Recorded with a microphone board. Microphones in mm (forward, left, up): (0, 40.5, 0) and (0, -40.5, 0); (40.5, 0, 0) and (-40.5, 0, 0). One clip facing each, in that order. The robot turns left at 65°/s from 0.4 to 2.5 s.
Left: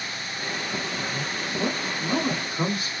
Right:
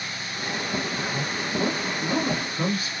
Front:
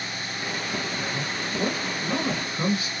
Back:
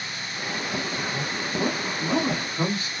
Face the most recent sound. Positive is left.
turn(degrees=150)